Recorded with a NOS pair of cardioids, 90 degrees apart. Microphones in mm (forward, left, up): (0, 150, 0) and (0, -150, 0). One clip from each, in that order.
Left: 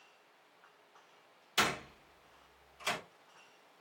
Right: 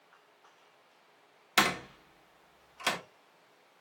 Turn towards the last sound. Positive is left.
turn(degrees=-55)